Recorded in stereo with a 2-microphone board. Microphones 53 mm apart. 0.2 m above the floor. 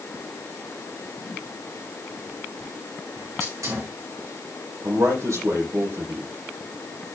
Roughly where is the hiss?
Right.